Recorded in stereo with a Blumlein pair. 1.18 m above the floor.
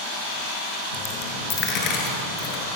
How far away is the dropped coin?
About 7 m.